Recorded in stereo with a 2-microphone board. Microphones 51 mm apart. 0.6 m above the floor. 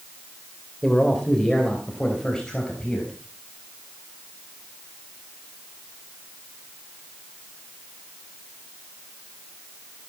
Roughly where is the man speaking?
Centre.